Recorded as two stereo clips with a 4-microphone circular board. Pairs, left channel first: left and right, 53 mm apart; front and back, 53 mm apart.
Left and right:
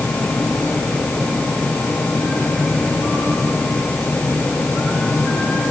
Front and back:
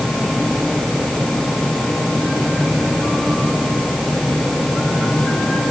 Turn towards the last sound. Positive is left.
No sound to turn to.